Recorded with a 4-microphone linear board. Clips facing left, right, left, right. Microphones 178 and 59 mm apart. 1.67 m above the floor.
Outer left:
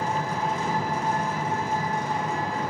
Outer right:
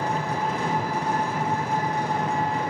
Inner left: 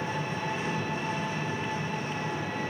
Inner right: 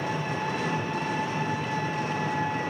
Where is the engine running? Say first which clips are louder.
Outer right 1 dB, inner right 3 dB; 65° right (ahead or behind), 0.8 m.